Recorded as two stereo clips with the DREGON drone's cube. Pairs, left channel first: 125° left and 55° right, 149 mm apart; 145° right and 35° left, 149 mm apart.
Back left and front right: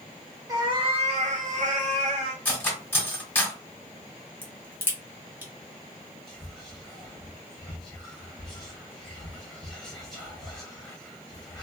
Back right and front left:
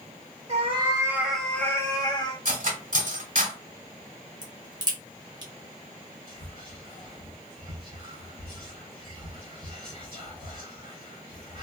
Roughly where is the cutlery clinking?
Ahead left.